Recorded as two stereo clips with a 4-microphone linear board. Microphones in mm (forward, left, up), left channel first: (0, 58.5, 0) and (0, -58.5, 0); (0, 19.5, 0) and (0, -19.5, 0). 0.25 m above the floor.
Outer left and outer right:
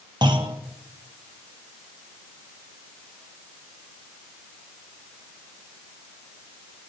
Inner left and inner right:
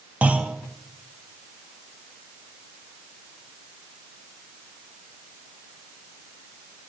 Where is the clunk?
40° right (ahead or behind), 0.8 m.